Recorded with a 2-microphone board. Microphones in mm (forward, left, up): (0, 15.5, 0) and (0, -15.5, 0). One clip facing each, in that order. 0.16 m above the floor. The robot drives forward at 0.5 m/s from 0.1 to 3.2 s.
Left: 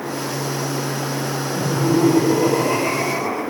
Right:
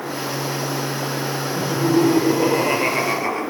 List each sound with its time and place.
1.6 s laughter: 35° right (ahead or behind), 3.5 m; by 3.4 s 40° right (ahead or behind), 3 m